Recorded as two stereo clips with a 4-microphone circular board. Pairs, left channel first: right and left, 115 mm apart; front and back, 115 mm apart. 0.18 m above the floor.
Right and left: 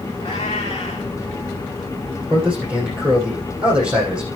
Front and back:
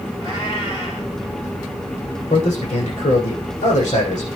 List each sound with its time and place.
0.2 s a cat meowing: 40° right, 5.5 m
2.3 s a man speaking: 10° left, 7.5 m